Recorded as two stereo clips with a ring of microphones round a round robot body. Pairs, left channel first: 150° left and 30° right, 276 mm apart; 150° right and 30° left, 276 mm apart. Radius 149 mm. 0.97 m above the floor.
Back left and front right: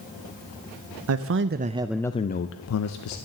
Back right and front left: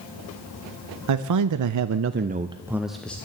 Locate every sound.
1.1 s a man speaking: 5° left, 0.8 m; by 3.2 s 125° left, 0.9 m